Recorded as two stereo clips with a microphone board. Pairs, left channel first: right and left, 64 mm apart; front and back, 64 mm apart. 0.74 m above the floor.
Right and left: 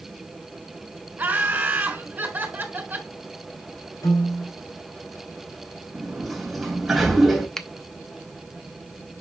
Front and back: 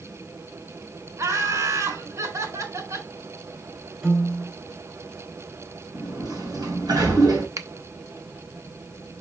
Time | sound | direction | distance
1.2 | laughter | 150° left | 3.5 m
4.0 | a piano | 100° right | 3.5 m
5.9 | a sliding door | straight behind | 3 m
7.6 | a finger snap | 170° right | 0.8 m